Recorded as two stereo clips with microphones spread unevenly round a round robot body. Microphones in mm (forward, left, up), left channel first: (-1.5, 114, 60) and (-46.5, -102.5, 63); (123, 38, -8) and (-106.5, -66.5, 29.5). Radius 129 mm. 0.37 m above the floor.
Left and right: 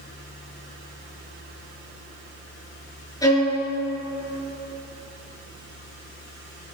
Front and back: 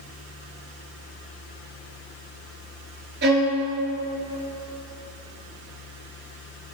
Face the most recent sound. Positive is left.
turn(degrees=150)